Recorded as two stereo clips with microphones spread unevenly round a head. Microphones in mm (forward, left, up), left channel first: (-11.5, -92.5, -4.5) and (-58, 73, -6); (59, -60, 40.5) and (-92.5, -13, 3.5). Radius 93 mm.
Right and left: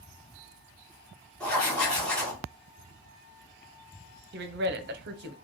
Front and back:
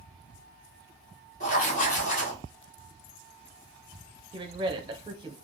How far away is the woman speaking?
About 0.8 m.